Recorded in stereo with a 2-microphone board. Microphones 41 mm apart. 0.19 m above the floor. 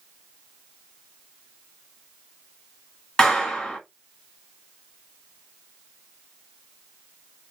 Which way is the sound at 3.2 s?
15° left (ahead or behind).